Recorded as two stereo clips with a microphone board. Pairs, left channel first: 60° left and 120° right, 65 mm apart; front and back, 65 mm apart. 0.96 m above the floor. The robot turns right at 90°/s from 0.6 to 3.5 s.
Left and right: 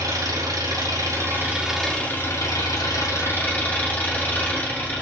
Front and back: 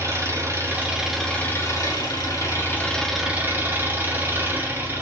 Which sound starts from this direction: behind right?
An engine running, at 0.0 s.